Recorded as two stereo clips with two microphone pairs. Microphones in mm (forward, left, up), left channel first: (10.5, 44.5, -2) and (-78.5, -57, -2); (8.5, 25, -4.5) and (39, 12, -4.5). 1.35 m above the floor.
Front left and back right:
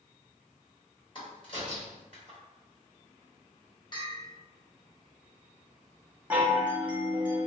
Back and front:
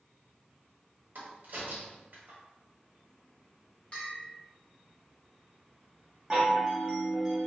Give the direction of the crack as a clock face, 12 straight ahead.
12 o'clock.